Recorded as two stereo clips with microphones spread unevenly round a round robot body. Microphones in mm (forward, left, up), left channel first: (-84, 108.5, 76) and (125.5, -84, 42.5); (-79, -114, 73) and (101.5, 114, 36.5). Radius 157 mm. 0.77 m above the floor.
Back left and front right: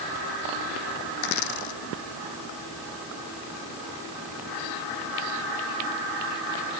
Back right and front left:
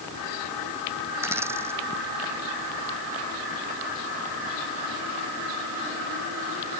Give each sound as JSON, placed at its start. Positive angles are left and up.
{"t": 1.2, "sound": "a dropped coin", "azimuth_deg": 135}